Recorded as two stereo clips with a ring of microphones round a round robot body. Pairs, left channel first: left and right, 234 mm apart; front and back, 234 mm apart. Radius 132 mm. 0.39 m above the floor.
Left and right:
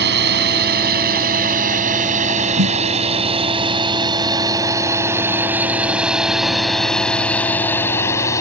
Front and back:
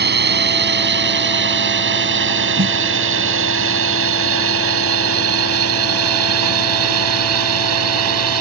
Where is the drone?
140° right; by 8.4 s 170° left.